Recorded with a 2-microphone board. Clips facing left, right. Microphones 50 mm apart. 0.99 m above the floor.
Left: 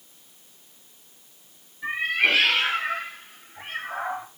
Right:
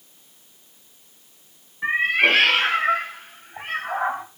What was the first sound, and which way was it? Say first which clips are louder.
A cat meowing: right 4 dB; 45° right (ahead or behind).